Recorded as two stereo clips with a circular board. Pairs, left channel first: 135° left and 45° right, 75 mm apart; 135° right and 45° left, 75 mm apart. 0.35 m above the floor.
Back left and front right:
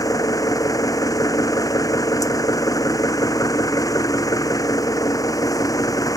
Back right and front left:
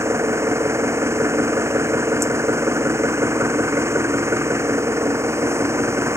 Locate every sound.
0.0 s an engine running: 100° left